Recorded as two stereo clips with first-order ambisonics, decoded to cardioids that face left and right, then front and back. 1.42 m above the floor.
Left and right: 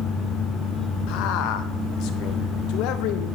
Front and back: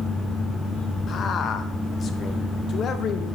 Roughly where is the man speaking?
Ahead left.